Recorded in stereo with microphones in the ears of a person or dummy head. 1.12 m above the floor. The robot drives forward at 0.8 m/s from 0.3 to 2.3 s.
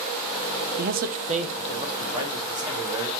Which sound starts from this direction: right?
A man speaking, at 0.8 s.